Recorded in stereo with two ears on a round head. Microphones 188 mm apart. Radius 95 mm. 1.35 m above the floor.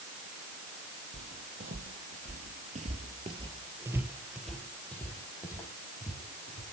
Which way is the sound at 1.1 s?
40° right (ahead or behind).